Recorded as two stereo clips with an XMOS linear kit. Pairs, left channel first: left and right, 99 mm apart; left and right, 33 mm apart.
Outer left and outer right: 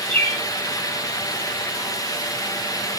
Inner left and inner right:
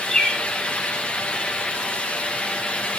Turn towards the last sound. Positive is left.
turn(degrees=15)  # may be behind; listen again after turning